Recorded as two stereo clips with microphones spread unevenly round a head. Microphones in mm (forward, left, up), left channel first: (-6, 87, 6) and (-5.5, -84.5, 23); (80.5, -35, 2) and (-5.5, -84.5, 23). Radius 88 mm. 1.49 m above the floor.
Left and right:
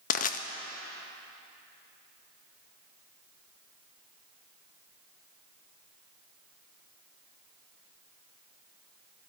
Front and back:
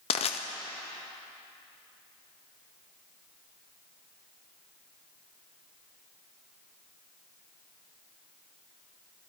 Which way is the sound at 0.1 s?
50° left.